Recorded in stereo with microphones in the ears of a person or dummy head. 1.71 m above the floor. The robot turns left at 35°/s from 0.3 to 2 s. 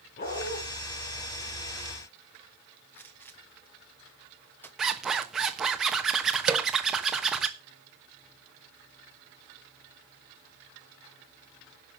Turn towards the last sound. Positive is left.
turn(degrees=-10)  # may be behind; listen again after turning